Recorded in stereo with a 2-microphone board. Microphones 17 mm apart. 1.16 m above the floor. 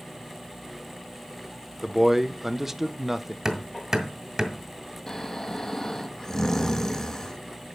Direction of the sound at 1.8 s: 20° right (ahead or behind).